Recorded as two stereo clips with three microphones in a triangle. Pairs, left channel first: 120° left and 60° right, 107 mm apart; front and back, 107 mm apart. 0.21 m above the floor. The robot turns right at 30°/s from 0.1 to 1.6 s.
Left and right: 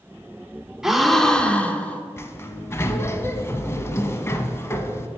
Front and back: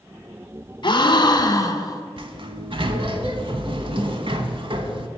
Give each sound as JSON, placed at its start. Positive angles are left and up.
{"t": 0.8, "sound": "a gasp", "azimuth_deg": 25, "distance_m": 0.5}
{"t": 2.2, "sound": "a sliding door", "azimuth_deg": 180, "distance_m": 0.5}